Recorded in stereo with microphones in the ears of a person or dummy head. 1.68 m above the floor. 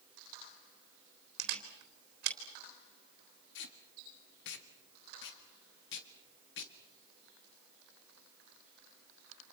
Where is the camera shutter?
60° right (ahead or behind), 3.5 m.